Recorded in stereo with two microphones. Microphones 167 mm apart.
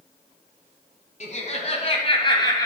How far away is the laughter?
About 1.8 m.